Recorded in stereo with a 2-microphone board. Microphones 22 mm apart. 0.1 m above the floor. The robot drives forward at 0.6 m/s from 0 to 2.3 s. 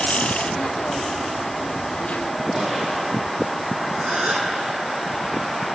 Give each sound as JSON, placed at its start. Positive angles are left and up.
{"t": 2.5, "sound": "a gunshot", "side_deg": -25, "distance_m": 4.0}
{"t": 4.0, "sound": "a gasp", "side_deg": -75, "distance_m": 0.9}